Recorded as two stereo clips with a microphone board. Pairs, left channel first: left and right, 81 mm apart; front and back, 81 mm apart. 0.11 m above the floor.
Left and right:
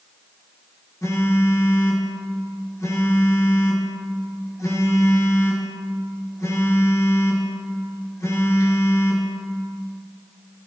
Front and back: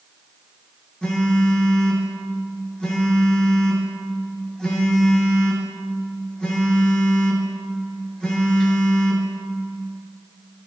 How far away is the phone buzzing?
About 1.4 m.